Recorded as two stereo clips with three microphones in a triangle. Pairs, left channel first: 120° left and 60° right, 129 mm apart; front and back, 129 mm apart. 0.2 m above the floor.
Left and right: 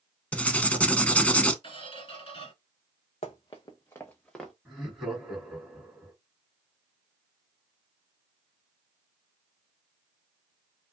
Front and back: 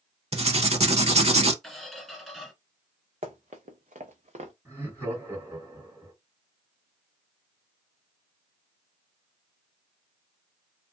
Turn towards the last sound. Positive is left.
turn(degrees=-145)